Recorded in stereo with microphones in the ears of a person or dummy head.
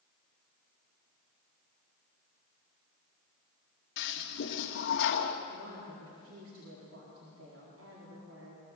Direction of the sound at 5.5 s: 85° right.